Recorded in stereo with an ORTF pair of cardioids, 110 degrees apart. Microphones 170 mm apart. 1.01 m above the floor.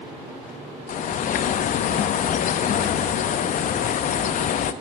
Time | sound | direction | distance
0.9 | a bird | 50° left | 0.6 m